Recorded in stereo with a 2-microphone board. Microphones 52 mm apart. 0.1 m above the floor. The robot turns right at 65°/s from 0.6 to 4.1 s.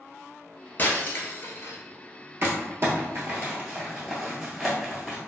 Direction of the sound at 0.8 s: 40° left (ahead or behind).